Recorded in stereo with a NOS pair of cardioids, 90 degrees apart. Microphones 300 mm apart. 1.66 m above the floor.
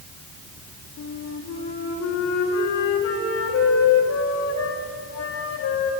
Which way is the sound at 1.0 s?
65° left.